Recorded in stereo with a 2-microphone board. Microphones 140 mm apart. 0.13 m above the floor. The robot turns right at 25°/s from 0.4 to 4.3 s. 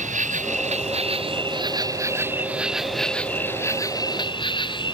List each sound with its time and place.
0.0 s an insect: 60° right; by 5.0 s 35° left